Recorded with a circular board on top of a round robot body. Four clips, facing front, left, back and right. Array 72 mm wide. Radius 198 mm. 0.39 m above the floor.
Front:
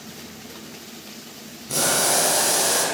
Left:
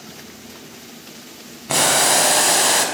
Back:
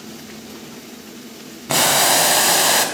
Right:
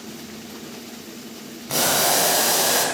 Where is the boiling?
150° left, 4.5 m.